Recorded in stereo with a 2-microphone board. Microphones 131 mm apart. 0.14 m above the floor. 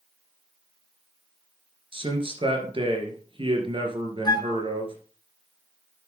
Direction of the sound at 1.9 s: 45° right (ahead or behind).